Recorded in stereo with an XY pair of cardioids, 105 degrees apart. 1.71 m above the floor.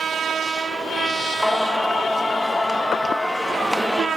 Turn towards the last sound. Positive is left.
turn(degrees=5)